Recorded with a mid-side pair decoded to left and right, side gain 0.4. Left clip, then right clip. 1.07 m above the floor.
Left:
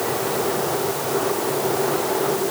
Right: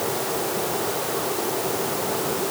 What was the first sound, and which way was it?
Only background noise.